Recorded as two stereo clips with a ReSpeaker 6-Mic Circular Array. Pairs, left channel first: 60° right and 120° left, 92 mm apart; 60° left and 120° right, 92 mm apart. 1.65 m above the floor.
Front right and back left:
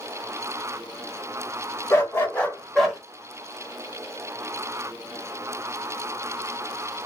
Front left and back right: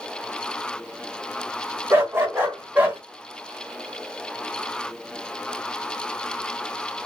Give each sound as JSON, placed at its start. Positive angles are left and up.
{"t": 1.9, "sound": "a dog barking", "azimuth_deg": -85, "distance_m": 1.6}